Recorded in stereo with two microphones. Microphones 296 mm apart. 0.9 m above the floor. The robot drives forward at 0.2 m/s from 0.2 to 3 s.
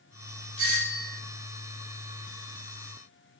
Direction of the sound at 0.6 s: 10° right (ahead or behind).